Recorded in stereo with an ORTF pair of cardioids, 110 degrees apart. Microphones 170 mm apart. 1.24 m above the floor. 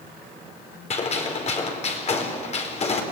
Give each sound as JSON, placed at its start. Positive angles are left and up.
{"t": 0.9, "sound": "a gunshot", "azimuth_deg": 40, "distance_m": 4.0}